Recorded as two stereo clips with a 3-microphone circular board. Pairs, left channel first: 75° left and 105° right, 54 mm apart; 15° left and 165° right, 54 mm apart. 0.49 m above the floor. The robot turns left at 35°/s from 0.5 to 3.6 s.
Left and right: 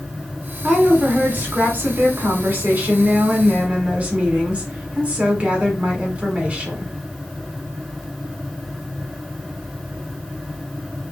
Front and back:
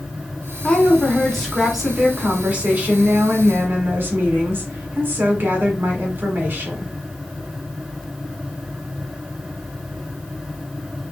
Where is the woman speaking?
45° right, 1.3 m; by 6.9 s 150° right, 1.3 m.